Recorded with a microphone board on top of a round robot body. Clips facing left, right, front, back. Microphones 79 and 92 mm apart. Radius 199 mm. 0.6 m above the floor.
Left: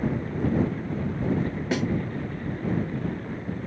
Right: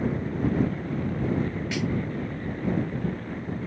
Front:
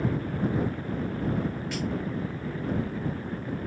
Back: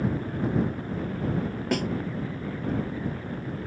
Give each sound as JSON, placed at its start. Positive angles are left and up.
{"t": 1.7, "sound": "a snare drum", "azimuth_deg": 145}